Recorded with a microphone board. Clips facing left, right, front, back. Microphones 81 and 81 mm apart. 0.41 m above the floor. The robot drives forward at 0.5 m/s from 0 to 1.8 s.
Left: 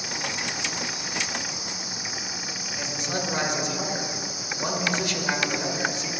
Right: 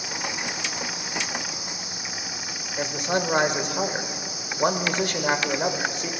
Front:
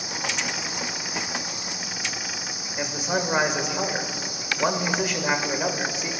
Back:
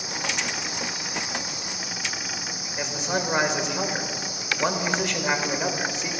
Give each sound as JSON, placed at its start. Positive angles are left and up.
{"t": 2.8, "sound": "a man speaking", "azimuth_deg": -85, "distance_m": 1.4}